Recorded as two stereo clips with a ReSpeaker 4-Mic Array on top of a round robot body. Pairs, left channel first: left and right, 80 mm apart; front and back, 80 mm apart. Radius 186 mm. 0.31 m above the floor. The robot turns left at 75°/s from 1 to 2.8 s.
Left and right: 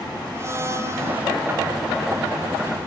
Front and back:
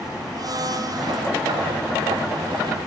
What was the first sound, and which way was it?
A blender, 145° right.